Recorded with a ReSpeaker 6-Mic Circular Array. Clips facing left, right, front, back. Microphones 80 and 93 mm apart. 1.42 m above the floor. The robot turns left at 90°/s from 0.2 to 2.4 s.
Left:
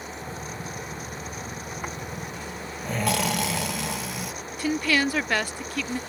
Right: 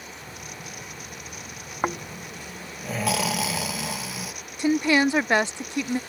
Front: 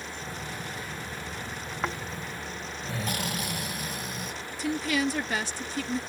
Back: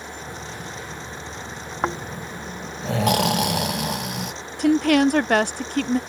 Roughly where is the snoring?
Behind right.